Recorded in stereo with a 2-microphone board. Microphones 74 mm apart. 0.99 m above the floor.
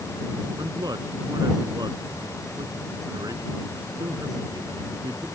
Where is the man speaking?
65° right (ahead or behind).